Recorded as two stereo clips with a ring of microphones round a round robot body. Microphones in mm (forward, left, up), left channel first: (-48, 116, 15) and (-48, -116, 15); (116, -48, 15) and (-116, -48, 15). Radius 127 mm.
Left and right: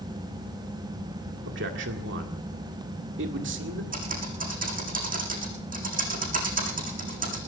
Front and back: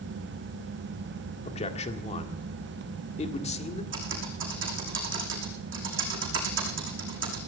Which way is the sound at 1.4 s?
60° right.